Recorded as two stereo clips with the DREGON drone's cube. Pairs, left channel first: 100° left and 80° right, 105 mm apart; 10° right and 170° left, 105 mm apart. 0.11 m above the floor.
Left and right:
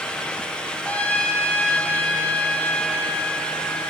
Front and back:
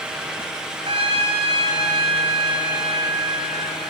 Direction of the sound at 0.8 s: 175° left.